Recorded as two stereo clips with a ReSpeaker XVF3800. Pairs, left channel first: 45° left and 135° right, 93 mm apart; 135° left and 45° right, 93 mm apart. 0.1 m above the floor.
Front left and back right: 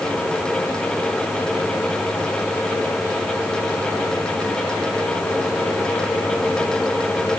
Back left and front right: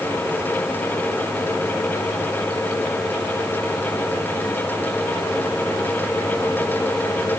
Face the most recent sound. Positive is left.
No sound to turn to.